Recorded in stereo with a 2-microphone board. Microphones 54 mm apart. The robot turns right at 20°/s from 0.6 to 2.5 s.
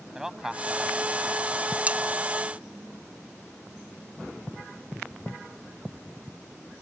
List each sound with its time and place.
0.1 s a man speaking: 10° right (ahead or behind); by 1.5 s centre (ahead or behind)
1.9 s cutlery clinking: 25° right (ahead or behind); by 2.0 s 30° right (ahead or behind)